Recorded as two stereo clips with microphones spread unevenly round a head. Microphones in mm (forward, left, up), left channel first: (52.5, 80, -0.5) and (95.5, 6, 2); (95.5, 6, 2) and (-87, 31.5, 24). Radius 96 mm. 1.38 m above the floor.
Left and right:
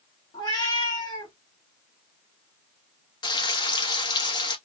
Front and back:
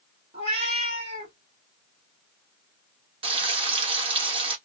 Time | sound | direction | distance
0.3 | a cat meowing | 135° left | 1.3 m
3.2 | frying | 125° left | 0.9 m